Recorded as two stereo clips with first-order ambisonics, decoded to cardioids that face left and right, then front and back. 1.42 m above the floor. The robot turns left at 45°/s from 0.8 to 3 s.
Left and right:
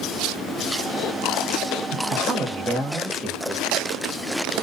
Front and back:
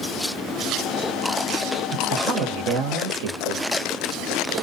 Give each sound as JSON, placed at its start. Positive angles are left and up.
{"t": 1.9, "sound": "a woman speaking", "azimuth_deg": -135, "distance_m": 0.7}